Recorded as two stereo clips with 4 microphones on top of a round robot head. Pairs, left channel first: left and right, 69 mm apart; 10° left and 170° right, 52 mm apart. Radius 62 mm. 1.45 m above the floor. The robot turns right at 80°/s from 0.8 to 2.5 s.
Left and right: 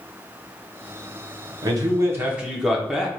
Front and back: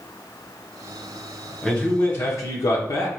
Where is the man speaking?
80° right, 1.0 m; by 3.1 s 5° right, 1.0 m.